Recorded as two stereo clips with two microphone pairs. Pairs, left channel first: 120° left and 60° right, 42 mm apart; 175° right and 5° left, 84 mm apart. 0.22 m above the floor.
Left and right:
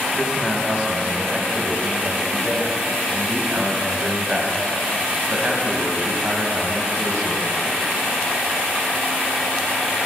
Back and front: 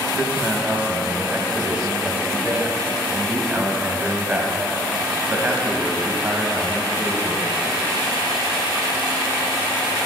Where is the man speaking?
35° right, 1.0 m.